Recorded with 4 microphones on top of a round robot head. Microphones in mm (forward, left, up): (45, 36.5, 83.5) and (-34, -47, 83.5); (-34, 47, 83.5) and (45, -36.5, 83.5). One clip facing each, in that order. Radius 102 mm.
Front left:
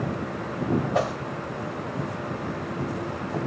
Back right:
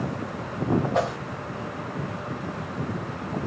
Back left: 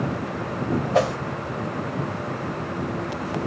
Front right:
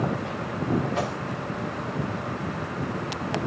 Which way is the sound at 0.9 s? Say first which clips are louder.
Even, back left 8 dB; 130° left.